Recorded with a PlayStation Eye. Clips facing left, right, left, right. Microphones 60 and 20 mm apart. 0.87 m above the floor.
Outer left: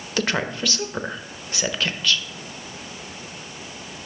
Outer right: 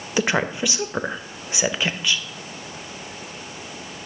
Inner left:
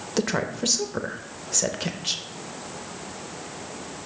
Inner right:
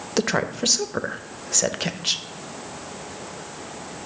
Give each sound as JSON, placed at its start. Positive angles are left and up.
{"t": 0.2, "sound": "a woman speaking", "side_deg": -15, "distance_m": 0.7}